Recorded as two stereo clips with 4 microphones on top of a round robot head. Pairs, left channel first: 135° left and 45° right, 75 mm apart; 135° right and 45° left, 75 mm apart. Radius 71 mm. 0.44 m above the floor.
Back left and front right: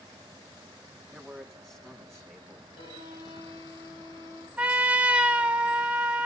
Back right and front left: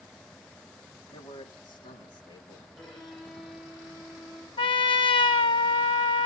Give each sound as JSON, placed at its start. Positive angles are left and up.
{"t": 1.1, "sound": "a man speaking", "azimuth_deg": -140, "distance_m": 4.0}
{"t": 2.8, "sound": "a violin", "azimuth_deg": 140, "distance_m": 9.0}
{"t": 4.6, "sound": "a trumpet", "azimuth_deg": -120, "distance_m": 1.4}